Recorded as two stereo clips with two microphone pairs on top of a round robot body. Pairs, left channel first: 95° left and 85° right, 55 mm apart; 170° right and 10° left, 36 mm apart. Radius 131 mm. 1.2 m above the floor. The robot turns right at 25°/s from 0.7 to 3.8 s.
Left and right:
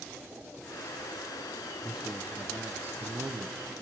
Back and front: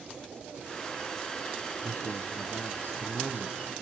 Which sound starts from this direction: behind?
A man speaking, at 1.8 s.